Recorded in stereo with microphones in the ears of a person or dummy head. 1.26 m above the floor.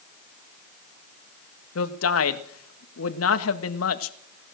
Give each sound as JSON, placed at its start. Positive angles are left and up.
{"t": 1.8, "sound": "a man speaking", "side_deg": 80, "distance_m": 1.7}